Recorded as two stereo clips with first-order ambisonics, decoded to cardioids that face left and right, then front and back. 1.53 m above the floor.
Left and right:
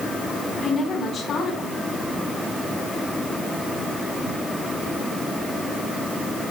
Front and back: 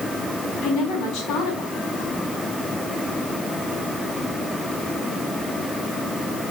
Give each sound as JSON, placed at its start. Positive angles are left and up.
{"t": 0.6, "sound": "a woman speaking", "azimuth_deg": 30, "distance_m": 4.0}